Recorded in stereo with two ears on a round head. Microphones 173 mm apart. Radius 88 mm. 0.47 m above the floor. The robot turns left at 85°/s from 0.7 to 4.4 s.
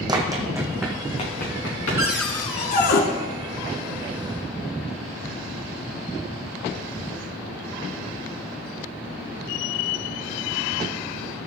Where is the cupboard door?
165° right, 2 m; by 3.0 s 105° left, 2 m.